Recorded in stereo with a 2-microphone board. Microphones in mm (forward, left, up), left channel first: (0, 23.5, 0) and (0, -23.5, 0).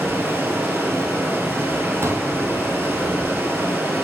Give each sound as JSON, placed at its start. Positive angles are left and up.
{"t": 0.0, "sound": "running water", "side_deg": -60, "distance_m": 2.0}
{"t": 2.0, "sound": "a pop", "side_deg": -75, "distance_m": 1.3}